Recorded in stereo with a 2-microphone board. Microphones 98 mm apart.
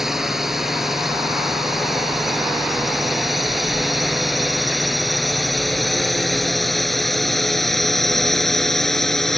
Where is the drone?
5° right (ahead or behind); by 9.4 s 5° left (ahead or behind).